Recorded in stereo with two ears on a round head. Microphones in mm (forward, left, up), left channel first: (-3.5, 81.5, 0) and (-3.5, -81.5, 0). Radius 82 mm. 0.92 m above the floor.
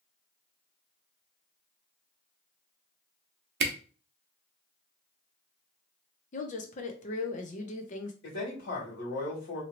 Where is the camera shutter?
55° right (ahead or behind), 0.6 m.